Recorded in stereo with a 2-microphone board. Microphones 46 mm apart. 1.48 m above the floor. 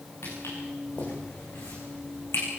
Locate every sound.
0.2 s footsteps: 80° left, 9.5 m; by 2.5 s 75° left (ahead or behind), 7.5 m